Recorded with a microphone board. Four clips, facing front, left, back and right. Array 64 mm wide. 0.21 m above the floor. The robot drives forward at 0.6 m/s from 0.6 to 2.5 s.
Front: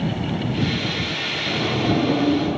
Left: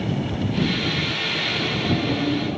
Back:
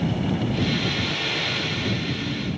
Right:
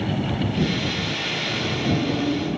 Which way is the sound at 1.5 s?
5° left.